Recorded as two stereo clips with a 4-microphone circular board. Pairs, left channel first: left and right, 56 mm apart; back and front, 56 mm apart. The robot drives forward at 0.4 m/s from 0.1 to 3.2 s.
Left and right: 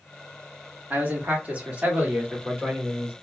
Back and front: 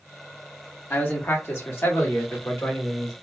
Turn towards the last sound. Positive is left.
turn(degrees=-155)